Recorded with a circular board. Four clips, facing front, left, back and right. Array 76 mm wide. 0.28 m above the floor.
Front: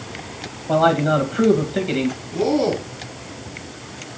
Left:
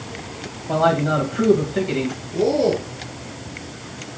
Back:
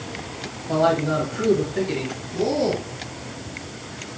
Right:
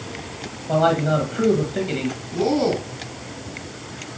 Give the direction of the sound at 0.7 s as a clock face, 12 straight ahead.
12 o'clock.